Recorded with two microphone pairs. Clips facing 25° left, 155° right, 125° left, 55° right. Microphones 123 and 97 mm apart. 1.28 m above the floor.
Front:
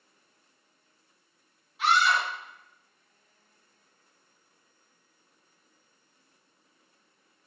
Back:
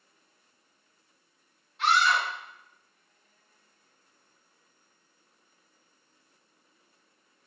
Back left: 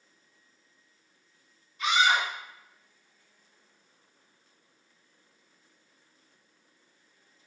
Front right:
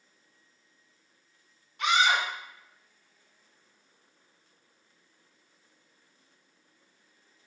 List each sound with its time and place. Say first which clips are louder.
1.8 s a scream: even, even; 60° right, 1.0 m